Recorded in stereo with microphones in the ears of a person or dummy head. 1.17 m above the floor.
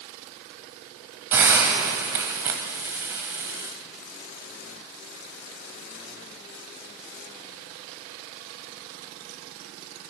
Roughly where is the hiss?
Centre.